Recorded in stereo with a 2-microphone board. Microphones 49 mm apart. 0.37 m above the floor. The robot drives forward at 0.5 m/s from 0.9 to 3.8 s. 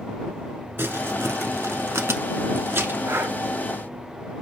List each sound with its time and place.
0.8 s crumpling: 55° right (ahead or behind), 0.8 m; by 3.0 s 50° right (ahead or behind), 0.9 m
3.1 s breathing: 65° right (ahead or behind), 0.5 m; by 3.4 s 50° right (ahead or behind), 0.6 m